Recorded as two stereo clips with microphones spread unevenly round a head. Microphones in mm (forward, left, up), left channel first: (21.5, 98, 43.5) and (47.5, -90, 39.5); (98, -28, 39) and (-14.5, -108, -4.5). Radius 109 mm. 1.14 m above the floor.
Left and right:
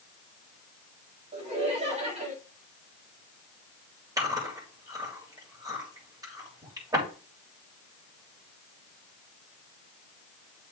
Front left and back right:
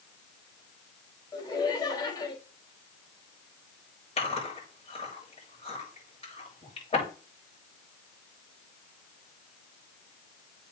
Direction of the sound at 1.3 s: 25° right.